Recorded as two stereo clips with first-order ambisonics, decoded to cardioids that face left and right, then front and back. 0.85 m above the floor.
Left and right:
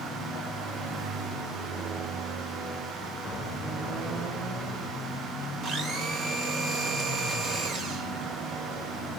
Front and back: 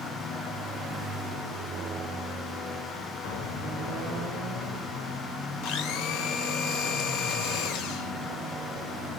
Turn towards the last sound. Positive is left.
turn(degrees=-30)